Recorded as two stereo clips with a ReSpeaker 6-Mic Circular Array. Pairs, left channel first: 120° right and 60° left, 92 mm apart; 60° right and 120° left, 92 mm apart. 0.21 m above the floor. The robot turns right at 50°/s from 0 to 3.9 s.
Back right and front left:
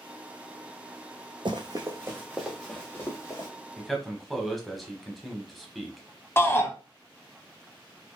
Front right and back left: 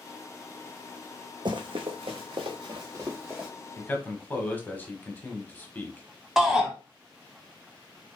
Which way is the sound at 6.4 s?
160° right.